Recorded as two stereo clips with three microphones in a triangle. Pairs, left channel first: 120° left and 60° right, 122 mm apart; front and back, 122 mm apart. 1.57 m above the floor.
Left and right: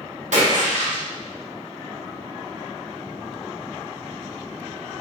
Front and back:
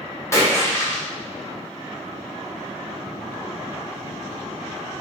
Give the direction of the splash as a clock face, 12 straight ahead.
2 o'clock.